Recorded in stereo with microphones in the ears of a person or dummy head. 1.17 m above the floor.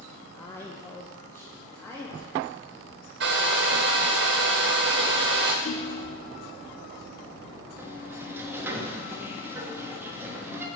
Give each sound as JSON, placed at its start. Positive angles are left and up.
{"t": 0.3, "sound": "a woman speaking", "side_deg": 10, "distance_m": 0.8}
{"t": 3.2, "sound": "a hair dryer", "side_deg": -60, "distance_m": 1.5}
{"t": 5.7, "sound": "a ringtone", "side_deg": 45, "distance_m": 0.9}
{"t": 7.8, "sound": "a sliding door", "side_deg": -10, "distance_m": 1.4}